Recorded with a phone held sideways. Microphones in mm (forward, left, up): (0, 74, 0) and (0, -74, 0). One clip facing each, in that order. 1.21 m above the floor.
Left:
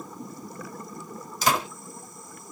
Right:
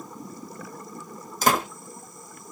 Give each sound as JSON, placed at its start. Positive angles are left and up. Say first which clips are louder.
{"t": 1.4, "sound": "a door slam", "louder": "right 2 dB", "side_deg": -50, "distance_m": 1.0}